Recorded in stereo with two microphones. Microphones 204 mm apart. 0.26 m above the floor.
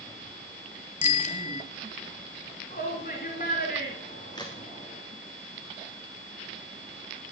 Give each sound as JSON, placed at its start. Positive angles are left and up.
{"t": 1.0, "sound": "a bicycle bell", "side_deg": 40, "distance_m": 3.0}
{"t": 2.7, "sound": "a shout", "side_deg": 45, "distance_m": 3.5}
{"t": 4.3, "sound": "a crack", "side_deg": 20, "distance_m": 3.5}